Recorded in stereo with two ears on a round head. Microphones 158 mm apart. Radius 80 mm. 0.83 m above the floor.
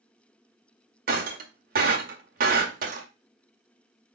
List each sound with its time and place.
1.1 s breaking glass: 50° right (ahead or behind), 1.9 m